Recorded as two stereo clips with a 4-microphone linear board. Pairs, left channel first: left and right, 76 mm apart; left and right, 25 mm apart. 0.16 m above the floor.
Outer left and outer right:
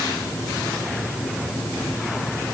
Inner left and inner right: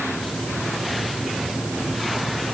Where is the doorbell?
I don't hear a doorbell.